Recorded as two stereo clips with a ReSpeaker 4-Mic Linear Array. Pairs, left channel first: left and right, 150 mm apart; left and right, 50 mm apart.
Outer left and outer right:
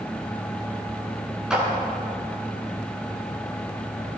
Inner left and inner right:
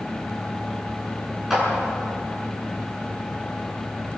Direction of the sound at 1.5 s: 5° right (ahead or behind).